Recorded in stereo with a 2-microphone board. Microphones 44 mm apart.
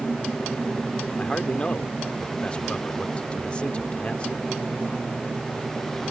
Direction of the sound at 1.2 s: 25° left (ahead or behind).